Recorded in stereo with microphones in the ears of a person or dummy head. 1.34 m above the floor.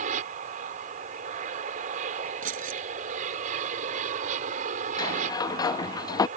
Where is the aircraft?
45° right (ahead or behind).